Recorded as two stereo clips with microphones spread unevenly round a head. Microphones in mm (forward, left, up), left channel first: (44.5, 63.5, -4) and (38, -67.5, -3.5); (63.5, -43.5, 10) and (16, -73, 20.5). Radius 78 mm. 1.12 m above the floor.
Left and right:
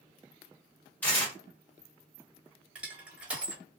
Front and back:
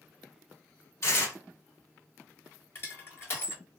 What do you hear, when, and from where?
1.0 s tearing paper: 10° left, 1.4 m
2.8 s crushing: 10° right, 1.4 m